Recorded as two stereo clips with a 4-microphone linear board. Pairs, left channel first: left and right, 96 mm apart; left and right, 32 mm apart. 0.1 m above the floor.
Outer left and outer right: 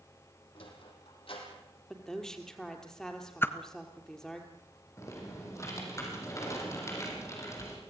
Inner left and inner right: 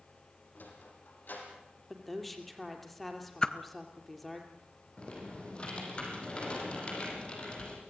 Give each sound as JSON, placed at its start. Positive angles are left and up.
{"t": 0.6, "sound": "a sliding door", "side_deg": 70, "distance_m": 4.5}
{"t": 1.9, "sound": "a woman speaking", "side_deg": 5, "distance_m": 3.0}
{"t": 3.4, "sound": "a whoosh", "side_deg": 25, "distance_m": 0.9}
{"t": 5.0, "sound": "typing on a keyboard", "side_deg": 30, "distance_m": 5.0}